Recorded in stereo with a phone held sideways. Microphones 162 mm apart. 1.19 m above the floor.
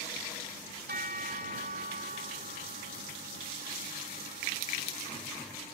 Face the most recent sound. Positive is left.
turn(degrees=-65)  # may be behind; listen again after turning